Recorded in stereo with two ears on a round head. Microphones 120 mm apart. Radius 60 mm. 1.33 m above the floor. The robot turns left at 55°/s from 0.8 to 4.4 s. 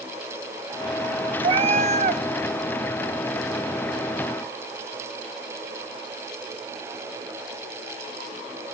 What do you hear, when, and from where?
1.4 s a cat meowing: 50° right, 1.0 m; by 2.2 s 90° right, 1.0 m